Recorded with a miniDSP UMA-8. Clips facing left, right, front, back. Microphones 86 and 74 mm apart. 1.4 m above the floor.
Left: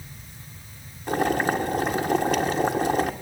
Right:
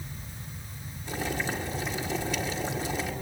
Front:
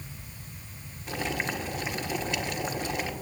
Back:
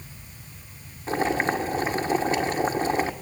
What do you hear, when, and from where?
1.1 s boiling: 125° left, 1.5 m